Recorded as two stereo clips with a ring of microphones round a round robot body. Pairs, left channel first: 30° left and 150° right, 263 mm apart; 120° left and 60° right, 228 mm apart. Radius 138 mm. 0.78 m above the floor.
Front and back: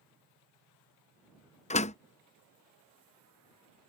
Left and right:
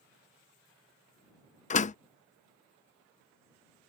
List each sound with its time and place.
1.7 s a door slam: 80° left